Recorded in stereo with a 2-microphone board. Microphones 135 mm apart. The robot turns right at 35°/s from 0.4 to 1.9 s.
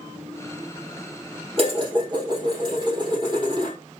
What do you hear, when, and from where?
1.6 s dishes clattering: 40° right (ahead or behind), 3 m; by 3.8 s 30° right (ahead or behind), 3 m